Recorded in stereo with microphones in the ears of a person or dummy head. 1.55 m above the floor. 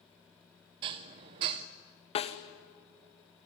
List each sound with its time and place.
0.8 s dishes clattering: 30° right (ahead or behind), 0.6 m
2.1 s a snare drum: 30° left (ahead or behind), 1.1 m